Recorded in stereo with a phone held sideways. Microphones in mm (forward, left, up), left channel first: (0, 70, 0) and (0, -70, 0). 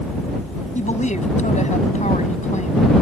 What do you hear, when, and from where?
0.8 s a woman speaking: 60° left (ahead or behind)